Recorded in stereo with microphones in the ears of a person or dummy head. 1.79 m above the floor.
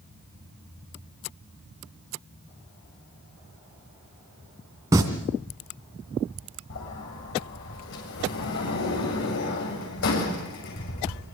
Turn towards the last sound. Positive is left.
turn(degrees=65)  # may be behind; listen again after turning